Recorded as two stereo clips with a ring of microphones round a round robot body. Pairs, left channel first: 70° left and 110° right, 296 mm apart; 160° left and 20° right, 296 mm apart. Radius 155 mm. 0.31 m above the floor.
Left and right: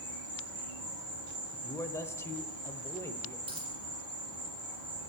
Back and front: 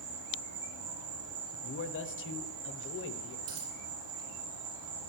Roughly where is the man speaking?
Behind left.